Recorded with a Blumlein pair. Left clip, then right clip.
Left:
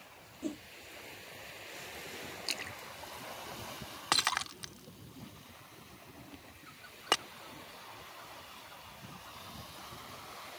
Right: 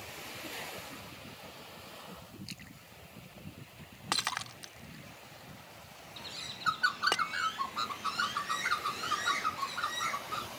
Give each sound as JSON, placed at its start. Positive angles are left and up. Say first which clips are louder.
{"t": 0.4, "sound": "a whoosh", "louder": "left 2 dB", "azimuth_deg": 30}
{"t": 2.5, "sound": "a splash", "louder": "left 11 dB", "azimuth_deg": 65}
{"t": 4.1, "sound": "breaking glass", "louder": "left 3 dB", "azimuth_deg": 10}
{"t": 6.2, "sound": "a bird", "louder": "right 11 dB", "azimuth_deg": -50}